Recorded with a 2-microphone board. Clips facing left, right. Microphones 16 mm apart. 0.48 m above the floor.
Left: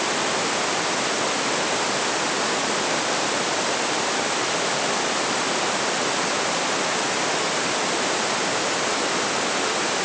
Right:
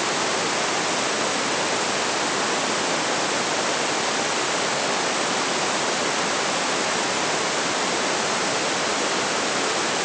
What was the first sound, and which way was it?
Only background noise.